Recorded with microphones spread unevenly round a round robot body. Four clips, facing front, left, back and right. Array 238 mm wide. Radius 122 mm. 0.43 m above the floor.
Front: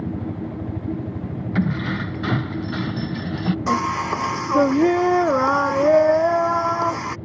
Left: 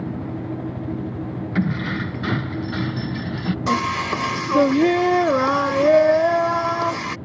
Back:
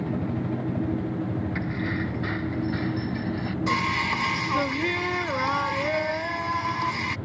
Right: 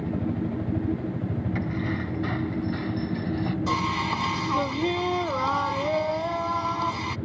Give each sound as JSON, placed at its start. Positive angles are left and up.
{"t": 1.6, "sound": "keys jangling", "azimuth_deg": 45}
{"t": 3.7, "sound": "singing", "azimuth_deg": 55}